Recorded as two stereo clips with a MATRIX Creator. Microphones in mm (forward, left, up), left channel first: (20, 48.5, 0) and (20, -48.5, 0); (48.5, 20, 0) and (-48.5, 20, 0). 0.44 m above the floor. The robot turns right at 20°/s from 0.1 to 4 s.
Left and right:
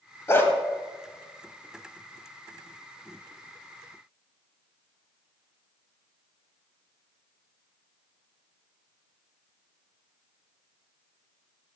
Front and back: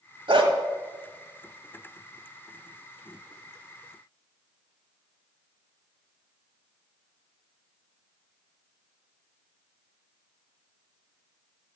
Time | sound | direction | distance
0.3 | a dog barking | 150° left | 1.1 m